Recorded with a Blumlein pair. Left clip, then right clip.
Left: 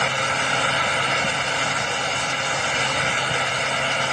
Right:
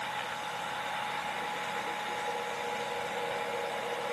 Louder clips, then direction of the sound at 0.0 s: Left 14 dB; 50° left.